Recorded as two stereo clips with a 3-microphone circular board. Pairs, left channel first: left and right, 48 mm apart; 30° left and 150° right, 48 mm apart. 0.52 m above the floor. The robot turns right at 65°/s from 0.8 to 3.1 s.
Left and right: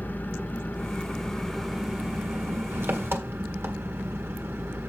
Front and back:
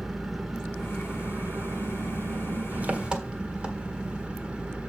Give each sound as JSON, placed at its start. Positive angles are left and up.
{"t": 0.0, "sound": "an engine running", "azimuth_deg": 125, "distance_m": 1.5}